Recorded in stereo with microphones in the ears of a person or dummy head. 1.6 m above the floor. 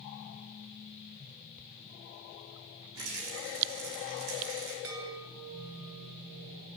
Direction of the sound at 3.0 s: 70° right (ahead or behind).